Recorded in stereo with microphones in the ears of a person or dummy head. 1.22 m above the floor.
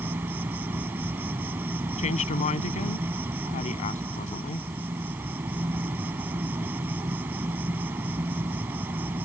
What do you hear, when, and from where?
0.0 s an insect: 10° right (ahead or behind)
2.0 s a woman speaking: 40° left (ahead or behind)